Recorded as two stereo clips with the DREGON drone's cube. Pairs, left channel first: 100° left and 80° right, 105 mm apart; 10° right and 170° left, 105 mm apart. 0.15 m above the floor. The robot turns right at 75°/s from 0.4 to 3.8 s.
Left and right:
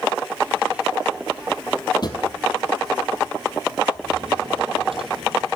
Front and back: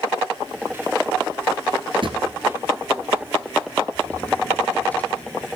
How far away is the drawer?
About 1.0 m.